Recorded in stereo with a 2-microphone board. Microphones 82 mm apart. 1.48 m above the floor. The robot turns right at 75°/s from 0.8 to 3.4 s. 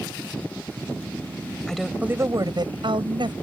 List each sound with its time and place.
1.7 s a woman speaking: 170° left; by 3.3 s 65° right